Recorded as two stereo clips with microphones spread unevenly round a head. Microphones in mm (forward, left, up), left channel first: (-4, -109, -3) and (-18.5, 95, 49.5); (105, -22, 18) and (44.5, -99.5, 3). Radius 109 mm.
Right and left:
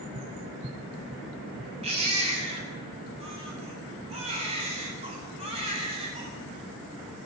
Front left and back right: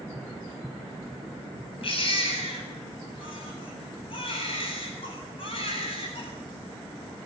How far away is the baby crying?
About 9 m.